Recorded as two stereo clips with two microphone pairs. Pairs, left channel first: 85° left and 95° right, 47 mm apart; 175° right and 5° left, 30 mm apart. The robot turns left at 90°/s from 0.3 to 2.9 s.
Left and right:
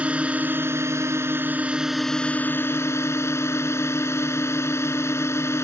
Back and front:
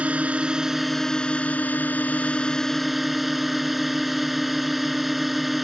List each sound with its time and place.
0.0 s a drone: 30° right; by 5.6 s 95° left